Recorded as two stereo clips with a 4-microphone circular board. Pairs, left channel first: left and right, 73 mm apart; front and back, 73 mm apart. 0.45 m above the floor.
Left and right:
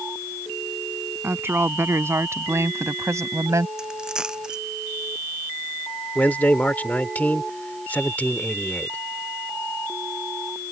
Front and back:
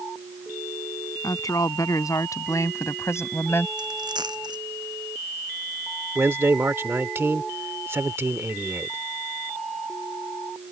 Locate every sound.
1.2 s a woman speaking: 35° right; by 3.7 s 55° right
3.8 s a dropped coin: 170° right
6.2 s a man speaking: 145° left